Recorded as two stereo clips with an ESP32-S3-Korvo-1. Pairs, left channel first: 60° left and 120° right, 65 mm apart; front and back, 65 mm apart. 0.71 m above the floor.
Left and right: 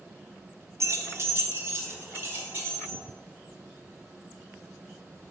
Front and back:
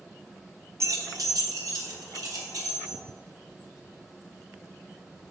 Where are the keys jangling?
150° right, 0.7 m; by 3.0 s 175° right, 3 m.